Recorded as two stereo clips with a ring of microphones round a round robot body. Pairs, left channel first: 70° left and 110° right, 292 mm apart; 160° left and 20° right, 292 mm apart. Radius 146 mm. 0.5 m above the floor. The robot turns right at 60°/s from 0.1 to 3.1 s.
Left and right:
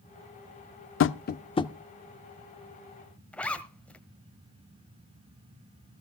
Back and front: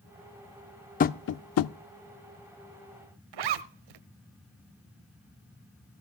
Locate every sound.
1.0 s tapping: 100° left, 0.5 m; by 1.7 s 145° left, 0.5 m
3.3 s a zipper: 20° right, 1.0 m